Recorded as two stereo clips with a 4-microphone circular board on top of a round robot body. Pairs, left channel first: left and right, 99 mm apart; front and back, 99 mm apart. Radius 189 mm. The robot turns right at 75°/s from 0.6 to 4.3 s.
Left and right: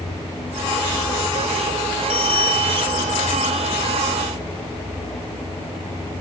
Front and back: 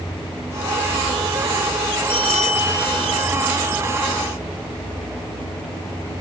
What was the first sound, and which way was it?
A bell, 65° left.